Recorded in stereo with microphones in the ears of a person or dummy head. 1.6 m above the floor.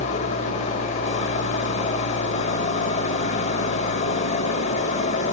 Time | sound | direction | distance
0.0 | an engine running | 45° left (ahead or behind) | 1.7 m